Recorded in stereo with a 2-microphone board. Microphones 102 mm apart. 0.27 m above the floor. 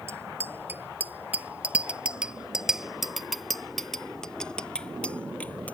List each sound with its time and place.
0.1 s a bicycle bell: 25° right (ahead or behind); by 5.7 s 15° left (ahead or behind)